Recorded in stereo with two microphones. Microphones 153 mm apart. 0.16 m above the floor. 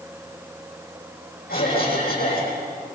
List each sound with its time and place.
1.5 s a cough: 75° left (ahead or behind), 8.5 m